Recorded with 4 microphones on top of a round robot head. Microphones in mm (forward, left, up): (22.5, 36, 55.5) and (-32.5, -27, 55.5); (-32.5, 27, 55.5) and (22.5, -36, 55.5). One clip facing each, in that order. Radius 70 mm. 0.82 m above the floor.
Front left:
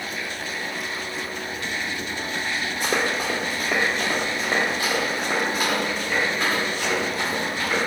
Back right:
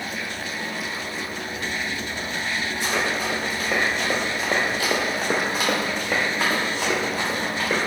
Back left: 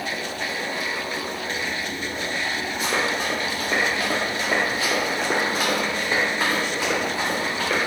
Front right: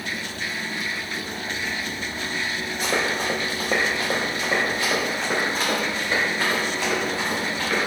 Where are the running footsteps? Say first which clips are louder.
Front left 2 dB, front right 1 dB; 5° left, 1.1 m; by 7.8 s 155° right, 3 m.